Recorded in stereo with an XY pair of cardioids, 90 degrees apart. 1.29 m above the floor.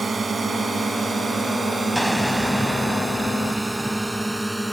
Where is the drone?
40° right; by 4.7 s 10° right.